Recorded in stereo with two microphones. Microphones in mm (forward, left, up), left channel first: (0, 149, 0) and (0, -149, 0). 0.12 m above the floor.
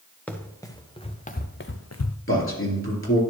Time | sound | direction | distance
0.3 | running footsteps | 5° left (ahead or behind) | 1.4 m
2.3 | a man speaking | 45° left (ahead or behind) | 2.5 m